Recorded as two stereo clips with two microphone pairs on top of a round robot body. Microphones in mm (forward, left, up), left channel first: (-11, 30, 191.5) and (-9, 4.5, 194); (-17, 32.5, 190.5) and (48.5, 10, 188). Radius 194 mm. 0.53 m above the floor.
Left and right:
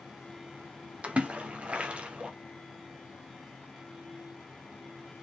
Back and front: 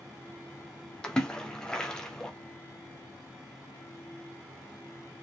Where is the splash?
120° right, 3 m.